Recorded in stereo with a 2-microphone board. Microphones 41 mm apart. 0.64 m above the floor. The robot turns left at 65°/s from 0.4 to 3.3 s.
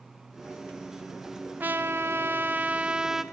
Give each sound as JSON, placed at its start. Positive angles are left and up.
{"t": 1.6, "sound": "a trumpet", "azimuth_deg": -65, "distance_m": 0.6}